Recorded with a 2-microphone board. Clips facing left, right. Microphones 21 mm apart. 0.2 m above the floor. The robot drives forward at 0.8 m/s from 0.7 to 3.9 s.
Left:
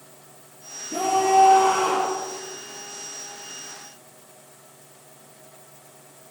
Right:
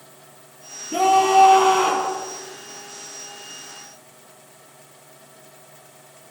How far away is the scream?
About 7 m.